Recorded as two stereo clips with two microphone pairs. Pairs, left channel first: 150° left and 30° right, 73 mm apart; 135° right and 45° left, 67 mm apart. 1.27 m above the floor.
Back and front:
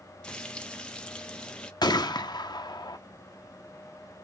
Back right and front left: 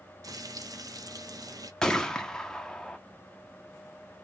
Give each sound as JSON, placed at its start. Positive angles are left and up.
{"t": 0.2, "sound": "frying", "azimuth_deg": 75, "distance_m": 0.6}
{"t": 1.8, "sound": "a gunshot", "azimuth_deg": 145, "distance_m": 0.6}